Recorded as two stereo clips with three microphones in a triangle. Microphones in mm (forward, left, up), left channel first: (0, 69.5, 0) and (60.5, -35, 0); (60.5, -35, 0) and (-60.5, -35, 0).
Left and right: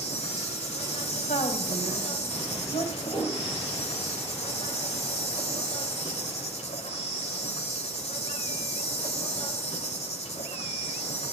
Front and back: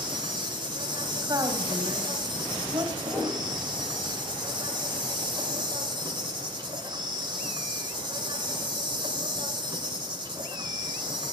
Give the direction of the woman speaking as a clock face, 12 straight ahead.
8 o'clock.